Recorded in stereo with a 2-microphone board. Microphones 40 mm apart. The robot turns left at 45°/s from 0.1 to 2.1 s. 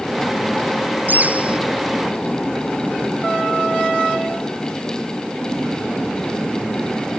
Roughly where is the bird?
Right.